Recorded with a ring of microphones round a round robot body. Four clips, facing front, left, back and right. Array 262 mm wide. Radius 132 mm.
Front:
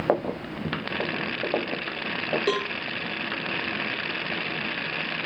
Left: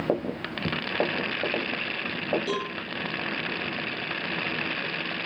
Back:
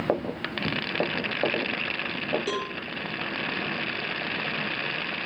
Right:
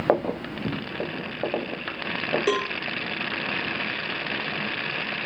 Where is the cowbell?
60° right, 1.0 m.